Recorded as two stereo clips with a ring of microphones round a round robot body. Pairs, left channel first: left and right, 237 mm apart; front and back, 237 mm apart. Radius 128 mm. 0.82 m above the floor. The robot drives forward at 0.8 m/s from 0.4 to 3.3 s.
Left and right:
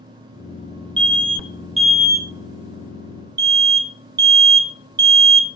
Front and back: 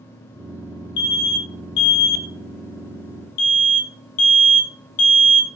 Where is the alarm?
20° right, 3.5 m; by 5.5 s 40° right, 1.9 m.